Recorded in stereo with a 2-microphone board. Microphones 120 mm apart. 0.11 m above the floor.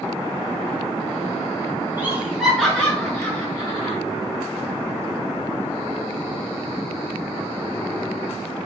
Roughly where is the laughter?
Centre.